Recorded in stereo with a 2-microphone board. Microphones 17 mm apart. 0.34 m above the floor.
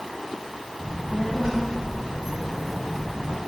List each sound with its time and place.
0.8 s a child speaking: 65° right (ahead or behind), 1.7 m; by 3.4 s 45° left (ahead or behind), 0.8 m